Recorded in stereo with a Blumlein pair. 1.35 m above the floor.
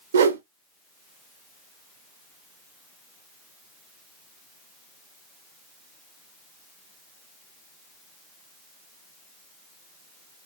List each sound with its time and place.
0.1 s a whoosh: 65° right, 0.8 m